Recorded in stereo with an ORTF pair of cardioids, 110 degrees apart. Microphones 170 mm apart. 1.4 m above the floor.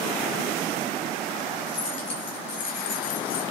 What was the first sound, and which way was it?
Keys jangling, 50° left.